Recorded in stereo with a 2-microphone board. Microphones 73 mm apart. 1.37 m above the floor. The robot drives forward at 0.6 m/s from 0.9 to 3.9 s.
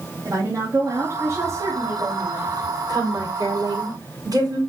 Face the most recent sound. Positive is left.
turn(degrees=-55)  # may be behind; listen again after turning